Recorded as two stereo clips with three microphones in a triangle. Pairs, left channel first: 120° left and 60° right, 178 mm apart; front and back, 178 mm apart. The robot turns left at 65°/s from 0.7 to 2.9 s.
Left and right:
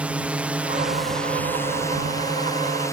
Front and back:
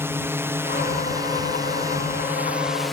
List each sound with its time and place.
0.0 s a drone: 130° right; by 2.9 s 85° left